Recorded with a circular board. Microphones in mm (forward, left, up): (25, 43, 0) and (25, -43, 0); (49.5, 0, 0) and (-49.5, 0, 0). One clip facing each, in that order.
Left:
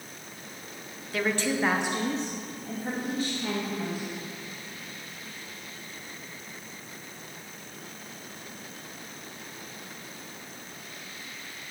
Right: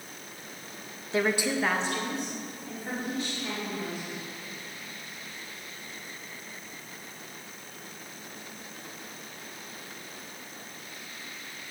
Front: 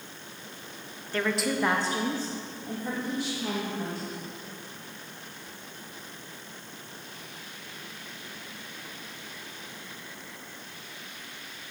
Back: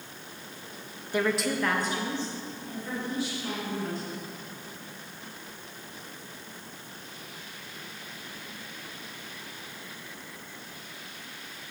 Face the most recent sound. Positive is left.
turn(degrees=40)